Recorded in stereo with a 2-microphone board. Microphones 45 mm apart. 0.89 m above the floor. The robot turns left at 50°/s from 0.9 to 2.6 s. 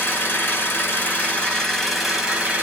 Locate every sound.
0.0 s an engine running: 55° left, 1.4 m; by 2.6 s 30° right, 1.4 m